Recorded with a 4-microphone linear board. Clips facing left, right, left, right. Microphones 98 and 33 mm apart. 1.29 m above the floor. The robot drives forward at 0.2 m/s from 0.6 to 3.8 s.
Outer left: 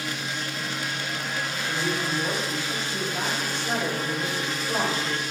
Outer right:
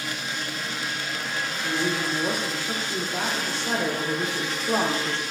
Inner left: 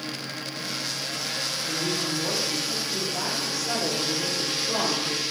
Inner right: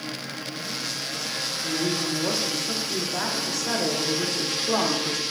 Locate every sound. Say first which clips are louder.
1.6 s a woman speaking: outer right 3 dB, inner right 3 dB; 50° right (ahead or behind), 1.0 m; by 5.2 s 70° right (ahead or behind), 0.8 m